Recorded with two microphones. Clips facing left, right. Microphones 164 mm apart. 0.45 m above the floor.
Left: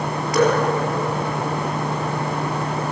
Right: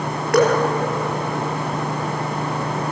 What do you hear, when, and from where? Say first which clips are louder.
0.3 s dripping: right 2 dB; 60° right (ahead or behind), 6 m